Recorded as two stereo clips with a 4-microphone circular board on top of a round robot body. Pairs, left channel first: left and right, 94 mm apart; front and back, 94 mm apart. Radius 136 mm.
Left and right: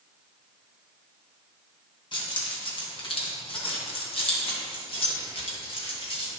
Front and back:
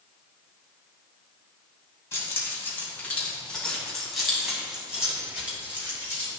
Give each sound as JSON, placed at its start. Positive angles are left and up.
{"t": 2.1, "sound": "keys jangling", "azimuth_deg": 60, "distance_m": 2.0}